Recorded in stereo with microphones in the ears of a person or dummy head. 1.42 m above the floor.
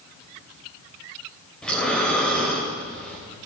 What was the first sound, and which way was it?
Breathing, 10° left (ahead or behind).